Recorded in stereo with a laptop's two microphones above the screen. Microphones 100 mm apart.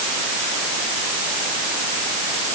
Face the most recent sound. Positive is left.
No sound to turn to.